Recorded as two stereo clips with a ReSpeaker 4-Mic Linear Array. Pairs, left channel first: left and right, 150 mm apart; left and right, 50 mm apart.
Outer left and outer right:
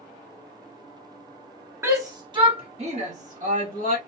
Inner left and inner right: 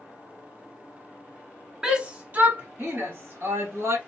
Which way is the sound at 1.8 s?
15° right (ahead or behind).